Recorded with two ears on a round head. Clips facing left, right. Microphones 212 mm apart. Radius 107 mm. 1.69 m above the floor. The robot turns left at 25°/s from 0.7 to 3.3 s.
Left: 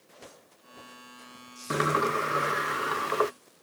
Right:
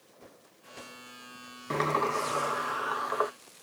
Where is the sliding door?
165° left; by 3.3 s 125° left.